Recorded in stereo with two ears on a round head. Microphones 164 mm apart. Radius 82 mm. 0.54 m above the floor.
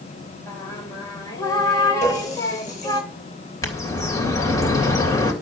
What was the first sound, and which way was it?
Singing, 20° left (ahead or behind).